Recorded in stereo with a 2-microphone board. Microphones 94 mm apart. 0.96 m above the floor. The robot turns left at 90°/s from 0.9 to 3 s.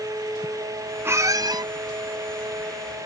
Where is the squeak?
35° right; by 1.6 s 90° right.